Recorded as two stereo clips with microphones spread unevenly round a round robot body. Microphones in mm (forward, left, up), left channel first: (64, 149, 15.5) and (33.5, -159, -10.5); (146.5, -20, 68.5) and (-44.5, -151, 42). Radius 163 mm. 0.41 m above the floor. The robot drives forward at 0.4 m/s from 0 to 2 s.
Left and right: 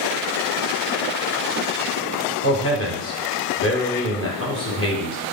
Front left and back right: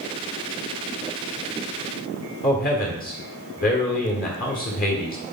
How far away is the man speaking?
About 1.6 m.